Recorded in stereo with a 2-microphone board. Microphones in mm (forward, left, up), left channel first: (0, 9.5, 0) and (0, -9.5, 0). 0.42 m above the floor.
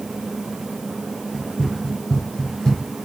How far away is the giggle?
No giggle in this recording.